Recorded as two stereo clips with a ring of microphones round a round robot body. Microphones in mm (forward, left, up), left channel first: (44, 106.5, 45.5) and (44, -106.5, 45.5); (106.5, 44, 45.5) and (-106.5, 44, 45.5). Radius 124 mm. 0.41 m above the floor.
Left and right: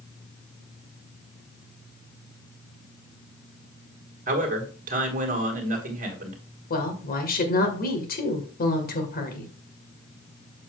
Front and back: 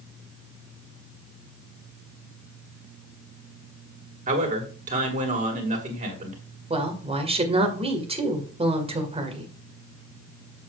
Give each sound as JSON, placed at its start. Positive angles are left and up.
{"t": 4.3, "sound": "a man speaking", "azimuth_deg": -130, "distance_m": 2.0}
{"t": 6.7, "sound": "a woman speaking", "azimuth_deg": 125, "distance_m": 2.0}